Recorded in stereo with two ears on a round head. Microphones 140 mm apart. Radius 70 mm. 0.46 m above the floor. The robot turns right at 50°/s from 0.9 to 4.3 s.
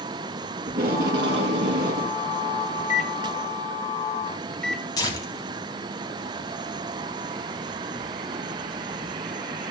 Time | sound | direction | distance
0.7 | tape being pulled | 115° right | 3 m
2.8 | a microwave | 50° left (ahead or behind) | 0.8 m
5.0 | tearing paper | 25° left (ahead or behind) | 4 m